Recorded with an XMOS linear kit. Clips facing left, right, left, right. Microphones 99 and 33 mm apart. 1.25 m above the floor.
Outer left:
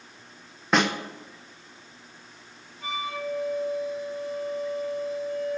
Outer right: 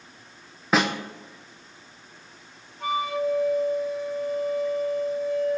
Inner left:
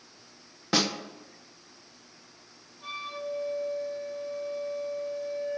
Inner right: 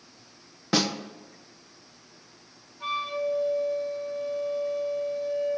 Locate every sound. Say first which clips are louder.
0.7 s a snare drum: even, inner right 1 dB; centre (ahead or behind), 0.9 m
2.8 s a flute: outer right 7 dB, inner right 8 dB; 55° right (ahead or behind), 1.5 m